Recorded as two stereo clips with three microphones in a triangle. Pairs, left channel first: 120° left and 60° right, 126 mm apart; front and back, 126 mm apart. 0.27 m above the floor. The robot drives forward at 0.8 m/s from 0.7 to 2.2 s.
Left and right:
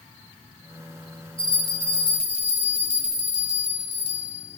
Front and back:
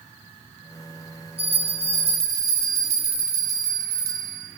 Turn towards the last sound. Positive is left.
turn(degrees=160)